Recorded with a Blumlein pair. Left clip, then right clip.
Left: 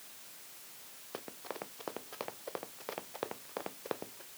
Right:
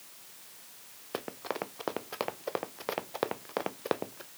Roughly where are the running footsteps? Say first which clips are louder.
Right 8 dB; ahead.